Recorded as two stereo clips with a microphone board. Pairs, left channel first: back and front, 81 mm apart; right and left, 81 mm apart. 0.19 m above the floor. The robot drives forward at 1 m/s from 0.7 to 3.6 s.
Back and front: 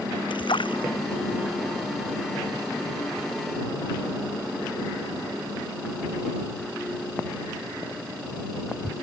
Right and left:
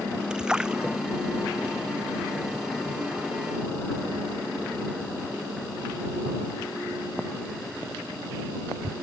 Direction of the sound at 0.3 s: 170° left.